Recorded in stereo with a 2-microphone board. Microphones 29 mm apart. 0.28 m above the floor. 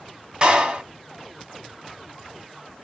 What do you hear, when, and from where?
0.4 s a clap: 30° right (ahead or behind), 2 m